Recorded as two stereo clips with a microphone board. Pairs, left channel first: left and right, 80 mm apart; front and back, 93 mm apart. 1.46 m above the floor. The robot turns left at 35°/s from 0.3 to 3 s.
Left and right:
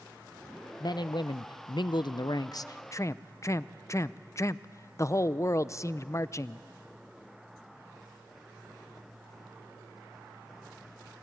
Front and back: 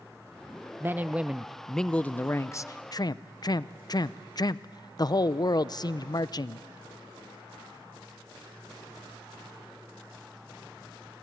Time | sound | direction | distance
0.8 | a man speaking | 115° left | 0.6 m